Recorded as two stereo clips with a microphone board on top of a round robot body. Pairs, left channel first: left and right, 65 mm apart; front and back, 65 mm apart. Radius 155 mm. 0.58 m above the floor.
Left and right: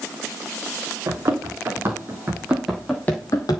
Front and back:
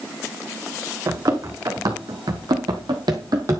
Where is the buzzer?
No buzzer in this recording.